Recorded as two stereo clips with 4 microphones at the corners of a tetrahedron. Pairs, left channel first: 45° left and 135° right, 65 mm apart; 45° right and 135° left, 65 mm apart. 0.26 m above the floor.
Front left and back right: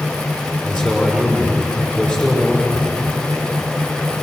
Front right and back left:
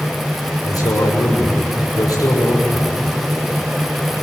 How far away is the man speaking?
About 6 m.